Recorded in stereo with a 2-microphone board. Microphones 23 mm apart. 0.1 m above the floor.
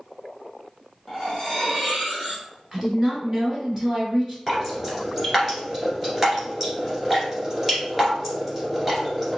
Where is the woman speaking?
15° right (ahead or behind), 1.5 m.